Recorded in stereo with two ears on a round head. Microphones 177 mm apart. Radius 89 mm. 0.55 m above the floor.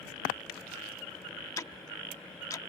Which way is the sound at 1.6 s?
15° left (ahead or behind).